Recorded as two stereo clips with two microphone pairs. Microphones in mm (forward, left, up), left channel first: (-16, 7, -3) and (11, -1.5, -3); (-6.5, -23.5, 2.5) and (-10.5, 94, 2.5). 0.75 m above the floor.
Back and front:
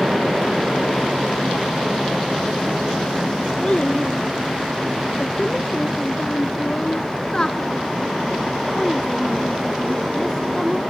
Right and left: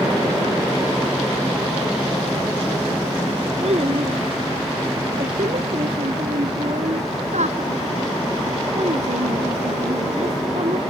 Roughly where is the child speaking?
Behind left.